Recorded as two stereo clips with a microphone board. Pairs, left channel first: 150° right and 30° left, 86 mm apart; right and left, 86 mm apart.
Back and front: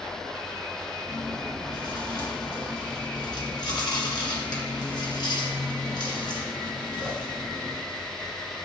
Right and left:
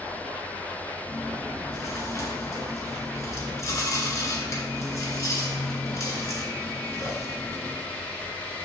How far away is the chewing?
About 2.5 m.